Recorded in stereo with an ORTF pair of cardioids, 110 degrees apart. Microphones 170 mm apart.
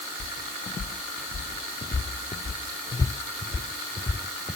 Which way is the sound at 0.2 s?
35° left.